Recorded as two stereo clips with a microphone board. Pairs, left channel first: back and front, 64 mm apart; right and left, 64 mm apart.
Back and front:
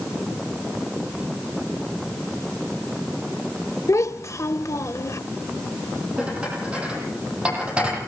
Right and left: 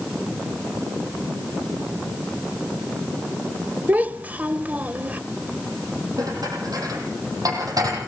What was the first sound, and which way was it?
A child speaking, 150° left.